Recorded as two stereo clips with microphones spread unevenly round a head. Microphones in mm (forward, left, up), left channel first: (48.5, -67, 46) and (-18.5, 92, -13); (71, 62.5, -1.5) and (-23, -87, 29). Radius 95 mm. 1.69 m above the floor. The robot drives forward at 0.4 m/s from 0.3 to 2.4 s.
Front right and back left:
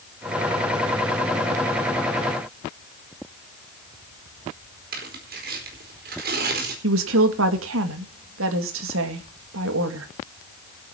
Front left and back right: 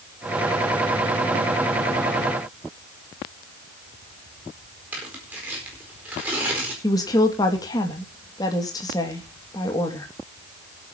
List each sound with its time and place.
4.9 s tearing paper: 155° left, 4.5 m
6.8 s a woman speaking: 130° left, 2 m